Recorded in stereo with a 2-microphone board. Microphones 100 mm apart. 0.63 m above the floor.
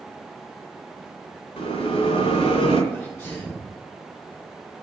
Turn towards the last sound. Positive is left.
turn(degrees=30)  # may be behind; listen again after turning